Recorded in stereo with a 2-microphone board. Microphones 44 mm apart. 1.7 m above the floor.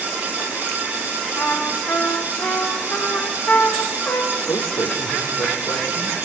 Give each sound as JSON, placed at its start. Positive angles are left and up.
{"t": 1.4, "sound": "a trumpet", "side_deg": 50, "distance_m": 5.0}
{"t": 4.3, "sound": "a man speaking", "side_deg": 85, "distance_m": 5.5}